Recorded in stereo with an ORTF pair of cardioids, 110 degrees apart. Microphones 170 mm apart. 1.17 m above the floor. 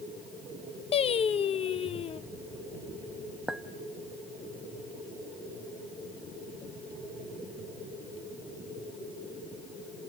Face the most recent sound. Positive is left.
turn(degrees=0)